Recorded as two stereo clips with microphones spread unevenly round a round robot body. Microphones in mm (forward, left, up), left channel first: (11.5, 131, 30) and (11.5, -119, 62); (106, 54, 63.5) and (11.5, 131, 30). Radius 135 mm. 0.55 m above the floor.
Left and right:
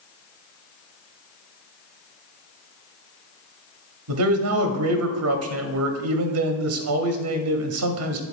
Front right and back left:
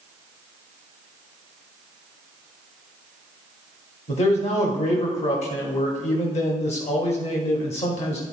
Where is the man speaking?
80° right, 1.0 m.